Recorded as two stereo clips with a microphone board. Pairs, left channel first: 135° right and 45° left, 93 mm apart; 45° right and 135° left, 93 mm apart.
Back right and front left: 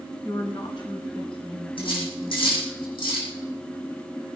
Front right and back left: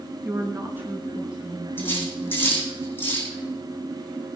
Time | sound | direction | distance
0.2 | a woman speaking | 175° right | 2.5 m
1.8 | cutlery clinking | 110° right | 6.5 m